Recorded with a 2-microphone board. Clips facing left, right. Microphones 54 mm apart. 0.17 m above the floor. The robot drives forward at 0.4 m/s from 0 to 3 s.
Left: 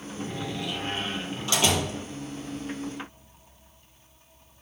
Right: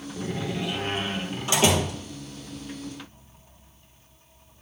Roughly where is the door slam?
Right.